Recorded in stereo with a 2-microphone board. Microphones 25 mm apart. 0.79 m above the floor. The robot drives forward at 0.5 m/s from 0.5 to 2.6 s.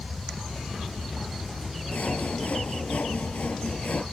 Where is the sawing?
75° left (ahead or behind); by 4.0 s 70° left (ahead or behind).